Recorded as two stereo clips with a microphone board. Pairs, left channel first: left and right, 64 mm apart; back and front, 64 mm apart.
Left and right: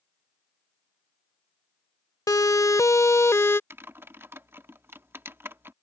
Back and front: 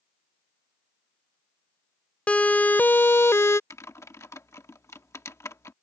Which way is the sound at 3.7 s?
140° right.